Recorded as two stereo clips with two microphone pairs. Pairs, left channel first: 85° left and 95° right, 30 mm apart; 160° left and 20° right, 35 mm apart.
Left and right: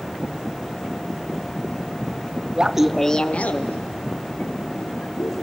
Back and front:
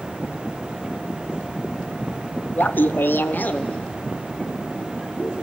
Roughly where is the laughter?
Behind.